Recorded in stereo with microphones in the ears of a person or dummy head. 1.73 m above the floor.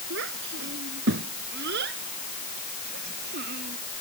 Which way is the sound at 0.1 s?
60° right (ahead or behind).